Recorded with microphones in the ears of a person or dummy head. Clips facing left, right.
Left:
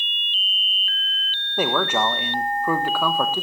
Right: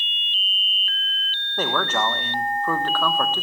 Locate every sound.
1.6 s a man speaking: 10° left (ahead or behind), 1.3 m